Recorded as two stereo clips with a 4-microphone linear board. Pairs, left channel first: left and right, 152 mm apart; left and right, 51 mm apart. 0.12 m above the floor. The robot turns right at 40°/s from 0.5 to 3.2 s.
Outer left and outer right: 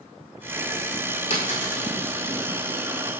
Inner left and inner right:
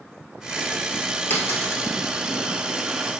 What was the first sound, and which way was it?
A dropped coin, 40° left (ahead or behind).